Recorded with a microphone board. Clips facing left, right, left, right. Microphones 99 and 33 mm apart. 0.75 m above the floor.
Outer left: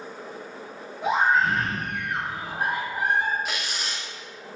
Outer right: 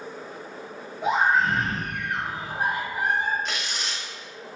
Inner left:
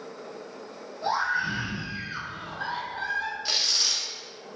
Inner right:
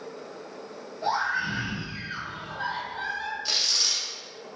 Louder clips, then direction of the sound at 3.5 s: Even, inner right 2 dB; 5° left (ahead or behind).